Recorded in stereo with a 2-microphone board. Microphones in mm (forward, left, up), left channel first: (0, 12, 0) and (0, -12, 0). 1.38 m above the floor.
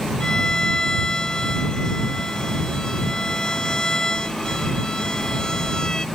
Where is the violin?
35° left (ahead or behind).